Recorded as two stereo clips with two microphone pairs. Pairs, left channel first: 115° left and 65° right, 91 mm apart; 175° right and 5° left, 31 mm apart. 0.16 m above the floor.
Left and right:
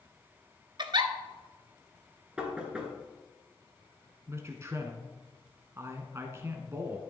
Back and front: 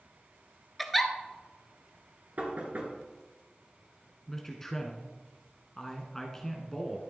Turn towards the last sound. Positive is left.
turn(degrees=-105)